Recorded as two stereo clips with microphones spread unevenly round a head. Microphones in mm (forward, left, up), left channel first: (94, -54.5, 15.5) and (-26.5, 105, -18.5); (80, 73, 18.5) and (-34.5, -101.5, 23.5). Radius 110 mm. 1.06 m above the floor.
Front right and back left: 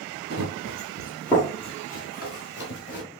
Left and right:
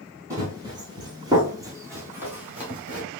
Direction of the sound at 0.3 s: 165° left.